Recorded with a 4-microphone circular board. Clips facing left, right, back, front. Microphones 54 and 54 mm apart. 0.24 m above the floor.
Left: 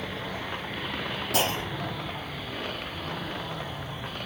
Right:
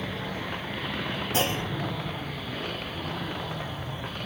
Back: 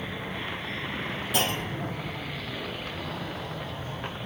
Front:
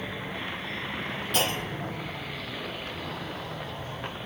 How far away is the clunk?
About 7.5 m.